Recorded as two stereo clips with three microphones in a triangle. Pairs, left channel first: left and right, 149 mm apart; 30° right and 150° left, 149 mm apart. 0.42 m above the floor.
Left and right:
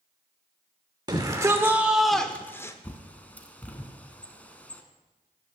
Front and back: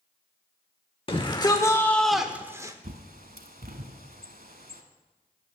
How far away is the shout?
About 0.9 m.